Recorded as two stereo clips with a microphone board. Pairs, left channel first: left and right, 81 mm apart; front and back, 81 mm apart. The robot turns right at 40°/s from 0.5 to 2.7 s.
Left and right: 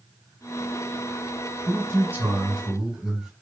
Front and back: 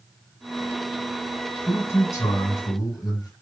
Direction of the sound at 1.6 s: 50° right.